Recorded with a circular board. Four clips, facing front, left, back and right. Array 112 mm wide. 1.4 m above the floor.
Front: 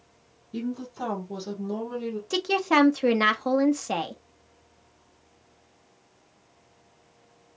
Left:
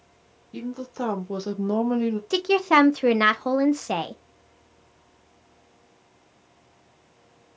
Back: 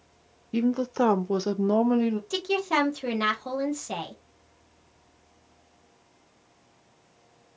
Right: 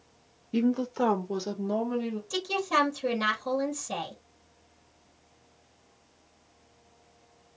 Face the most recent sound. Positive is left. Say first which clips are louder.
# left 8 dB, front 3 dB
turn(degrees=65)